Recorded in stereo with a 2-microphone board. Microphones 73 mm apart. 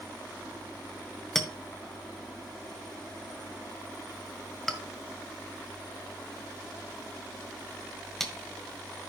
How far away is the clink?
About 1.5 m.